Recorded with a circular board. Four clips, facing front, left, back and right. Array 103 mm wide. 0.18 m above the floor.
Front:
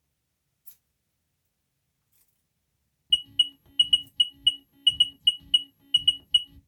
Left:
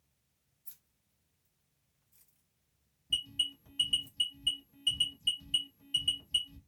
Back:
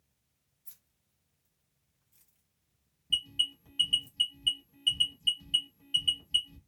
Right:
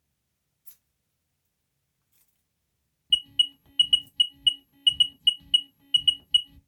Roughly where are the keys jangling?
Right.